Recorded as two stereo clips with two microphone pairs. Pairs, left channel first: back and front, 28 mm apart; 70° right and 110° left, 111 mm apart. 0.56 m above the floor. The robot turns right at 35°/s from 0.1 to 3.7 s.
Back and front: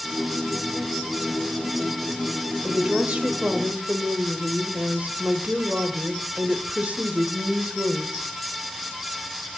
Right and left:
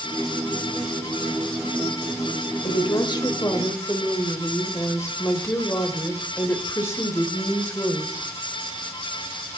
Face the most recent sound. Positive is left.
turn(degrees=-5)